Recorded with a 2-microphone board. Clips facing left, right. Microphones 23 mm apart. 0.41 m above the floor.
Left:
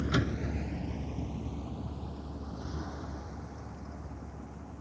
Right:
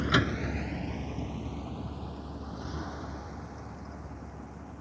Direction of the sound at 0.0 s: 60° right (ahead or behind).